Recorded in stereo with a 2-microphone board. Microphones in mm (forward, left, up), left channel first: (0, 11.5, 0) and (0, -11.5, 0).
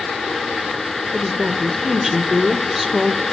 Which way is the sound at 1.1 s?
15° right (ahead or behind).